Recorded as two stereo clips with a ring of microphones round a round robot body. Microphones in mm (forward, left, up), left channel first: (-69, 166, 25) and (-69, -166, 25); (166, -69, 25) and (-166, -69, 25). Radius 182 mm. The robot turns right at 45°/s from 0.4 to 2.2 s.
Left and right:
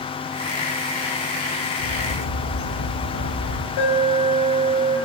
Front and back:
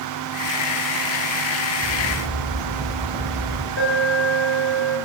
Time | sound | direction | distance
1.8 | a bird | 85° left | 3.5 m
3.8 | an alarm | 60° left | 5 m